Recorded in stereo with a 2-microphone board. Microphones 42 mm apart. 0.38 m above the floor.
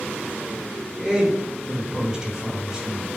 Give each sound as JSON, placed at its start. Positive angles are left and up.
{"t": 1.0, "sound": "a man speaking", "side_deg": -15, "distance_m": 1.8}